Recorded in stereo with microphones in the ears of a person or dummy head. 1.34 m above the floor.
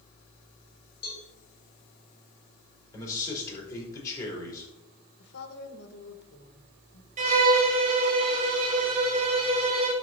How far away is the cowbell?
About 4 m.